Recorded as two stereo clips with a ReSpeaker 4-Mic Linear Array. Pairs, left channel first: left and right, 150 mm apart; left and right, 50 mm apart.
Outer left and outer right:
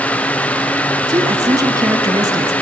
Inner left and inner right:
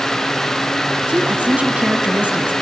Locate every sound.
1.1 s a woman speaking: 25° right (ahead or behind), 1.2 m